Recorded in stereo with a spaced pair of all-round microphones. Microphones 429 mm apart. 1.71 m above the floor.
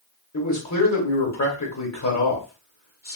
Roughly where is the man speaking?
Left.